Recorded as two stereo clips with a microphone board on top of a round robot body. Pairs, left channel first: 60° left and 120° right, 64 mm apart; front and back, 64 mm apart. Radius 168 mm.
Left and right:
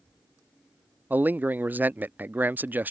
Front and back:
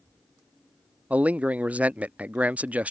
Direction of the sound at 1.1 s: 135° right.